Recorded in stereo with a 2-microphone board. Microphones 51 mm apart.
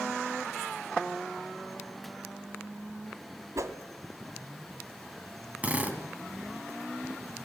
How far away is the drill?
About 2.5 m.